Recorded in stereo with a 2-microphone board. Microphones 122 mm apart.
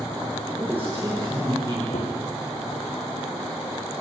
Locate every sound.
0.6 s a man speaking: 15° right (ahead or behind), 7 m; by 1.8 s 20° right (ahead or behind), 7.5 m
1.9 s a gunshot: 65° left (ahead or behind), 4.5 m